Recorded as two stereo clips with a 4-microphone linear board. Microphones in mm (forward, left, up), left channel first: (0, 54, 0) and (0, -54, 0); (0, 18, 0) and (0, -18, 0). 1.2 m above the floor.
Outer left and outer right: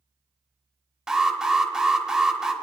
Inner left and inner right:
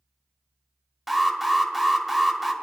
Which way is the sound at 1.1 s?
5° right (ahead or behind).